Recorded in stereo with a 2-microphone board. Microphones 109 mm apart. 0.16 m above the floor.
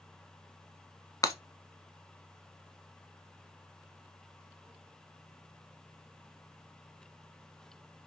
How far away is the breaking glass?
About 0.6 m.